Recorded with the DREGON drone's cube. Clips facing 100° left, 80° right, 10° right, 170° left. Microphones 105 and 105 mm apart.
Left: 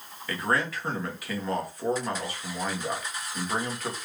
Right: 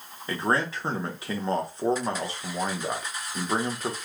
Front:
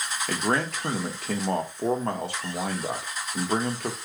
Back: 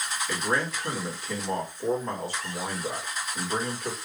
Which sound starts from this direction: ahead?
A man speaking, at 0.3 s.